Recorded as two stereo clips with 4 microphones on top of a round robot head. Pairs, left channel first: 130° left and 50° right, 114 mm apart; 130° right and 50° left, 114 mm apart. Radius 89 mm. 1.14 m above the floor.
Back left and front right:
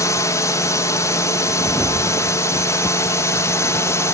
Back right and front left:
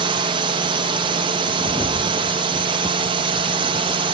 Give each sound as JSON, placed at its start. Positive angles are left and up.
{"t": 0.0, "sound": "a drone", "azimuth_deg": 75}